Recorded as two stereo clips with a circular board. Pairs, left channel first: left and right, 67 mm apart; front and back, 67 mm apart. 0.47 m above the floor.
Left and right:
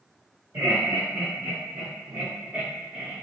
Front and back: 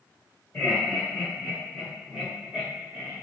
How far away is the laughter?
About 1.6 m.